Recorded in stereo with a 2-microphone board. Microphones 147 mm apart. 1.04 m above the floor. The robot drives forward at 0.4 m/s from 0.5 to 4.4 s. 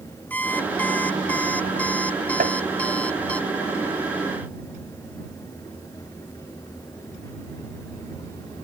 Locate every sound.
0.3 s an alarm clock: 10° left (ahead or behind)
2.4 s tapping: 85° right